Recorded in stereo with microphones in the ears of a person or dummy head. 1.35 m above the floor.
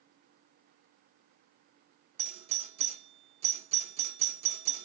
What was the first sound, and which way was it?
A doorbell, 35° right (ahead or behind).